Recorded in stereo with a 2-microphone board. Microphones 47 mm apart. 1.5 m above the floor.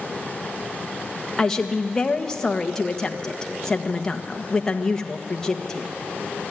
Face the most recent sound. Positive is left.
turn(degrees=15)  # may be behind; listen again after turning